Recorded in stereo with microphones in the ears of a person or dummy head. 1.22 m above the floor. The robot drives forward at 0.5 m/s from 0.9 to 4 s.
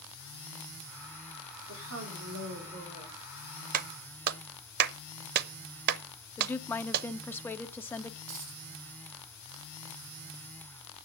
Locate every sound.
1.7 s a woman speaking: 70° right (ahead or behind), 3.5 m; by 3.2 s 60° right (ahead or behind), 3.5 m
3.7 s a clap: 45° right (ahead or behind), 0.7 m; by 7.1 s 55° right (ahead or behind), 0.6 m
6.4 s a woman speaking: 10° left (ahead or behind), 0.5 m
8.3 s a dropped coin: 80° right, 7 m